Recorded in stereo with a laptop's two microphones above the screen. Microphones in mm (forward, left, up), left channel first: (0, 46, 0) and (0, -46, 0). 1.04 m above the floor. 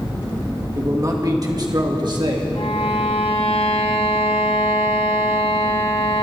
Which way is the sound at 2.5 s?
85° left.